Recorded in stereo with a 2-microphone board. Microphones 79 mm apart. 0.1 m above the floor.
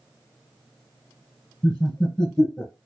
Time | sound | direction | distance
1.6 | laughter | 15° left (ahead or behind) | 1.4 m